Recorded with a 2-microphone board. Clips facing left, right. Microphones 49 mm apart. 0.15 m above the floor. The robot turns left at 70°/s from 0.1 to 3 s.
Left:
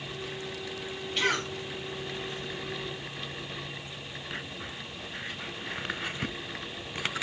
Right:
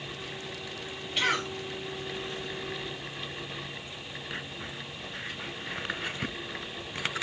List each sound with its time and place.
1.2 s a cough: 5° right (ahead or behind), 1.3 m; by 1.5 s 20° right (ahead or behind), 1.3 m